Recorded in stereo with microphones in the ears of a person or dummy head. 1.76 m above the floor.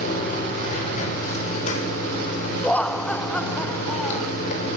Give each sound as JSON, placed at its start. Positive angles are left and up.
{"t": 0.0, "sound": "running water", "side_deg": 50, "distance_m": 6.0}
{"t": 2.6, "sound": "laughter", "side_deg": 5, "distance_m": 0.9}